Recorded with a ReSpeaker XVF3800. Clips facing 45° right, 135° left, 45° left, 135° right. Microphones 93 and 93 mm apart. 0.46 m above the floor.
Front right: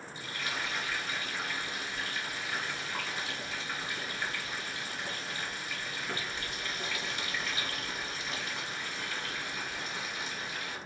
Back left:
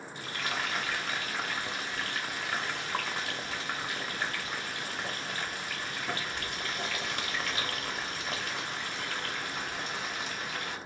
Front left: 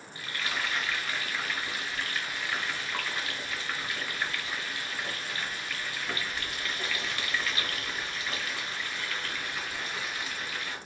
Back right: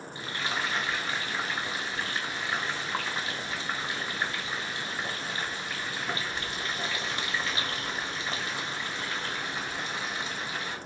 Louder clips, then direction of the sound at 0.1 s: Back left 3 dB, back right 2 dB; 160° left.